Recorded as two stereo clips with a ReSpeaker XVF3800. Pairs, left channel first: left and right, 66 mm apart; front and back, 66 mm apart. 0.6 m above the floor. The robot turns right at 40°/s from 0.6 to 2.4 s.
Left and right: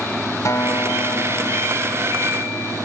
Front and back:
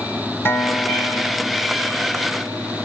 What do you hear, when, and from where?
0.5 s a guitar: 50° left; by 2.9 s 120° left